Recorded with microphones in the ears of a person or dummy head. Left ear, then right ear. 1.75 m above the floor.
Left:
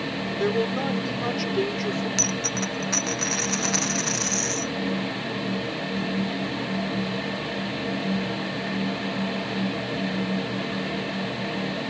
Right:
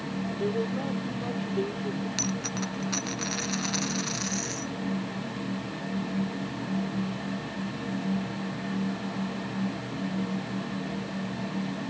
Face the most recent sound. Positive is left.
turn(degrees=20)  # may be behind; listen again after turning